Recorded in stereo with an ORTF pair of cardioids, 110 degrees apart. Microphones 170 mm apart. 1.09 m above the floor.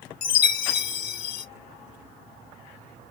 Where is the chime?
55° left, 0.9 m.